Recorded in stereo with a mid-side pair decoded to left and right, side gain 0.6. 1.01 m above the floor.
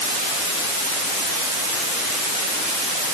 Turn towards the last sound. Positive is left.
No sound to turn to.